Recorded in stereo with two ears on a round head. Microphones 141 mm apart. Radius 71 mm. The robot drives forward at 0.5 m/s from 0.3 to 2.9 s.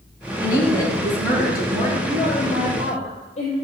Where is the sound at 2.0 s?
45° left (ahead or behind), 2.5 m; by 3.5 s 40° left (ahead or behind), 2.5 m.